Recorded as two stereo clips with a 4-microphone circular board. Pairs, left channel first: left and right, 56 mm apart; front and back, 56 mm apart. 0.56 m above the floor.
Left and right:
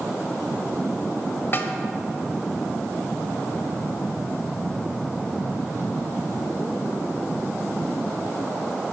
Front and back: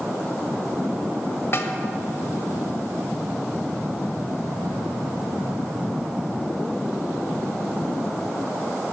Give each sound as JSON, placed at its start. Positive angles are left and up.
{"t": 1.5, "sound": "a snare drum", "azimuth_deg": 40, "distance_m": 1.0}